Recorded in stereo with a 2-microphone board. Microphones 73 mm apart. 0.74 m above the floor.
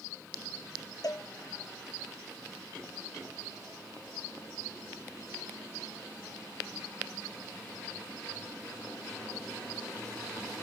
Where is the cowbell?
60° left (ahead or behind), 0.6 m.